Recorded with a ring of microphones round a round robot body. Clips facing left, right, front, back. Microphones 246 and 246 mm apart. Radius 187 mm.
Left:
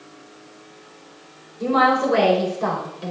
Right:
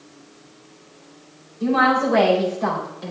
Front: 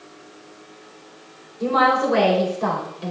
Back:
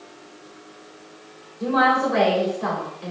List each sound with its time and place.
1.6 s a woman speaking: 50° left, 3.5 m; by 3.1 s 40° left, 4 m